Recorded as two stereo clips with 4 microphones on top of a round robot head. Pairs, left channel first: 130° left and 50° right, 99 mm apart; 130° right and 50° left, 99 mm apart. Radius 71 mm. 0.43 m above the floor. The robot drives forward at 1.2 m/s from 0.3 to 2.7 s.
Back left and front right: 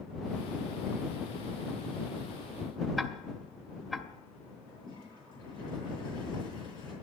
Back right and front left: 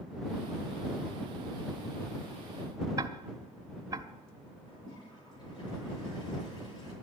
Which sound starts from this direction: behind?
A toilet flushing, at 4.7 s.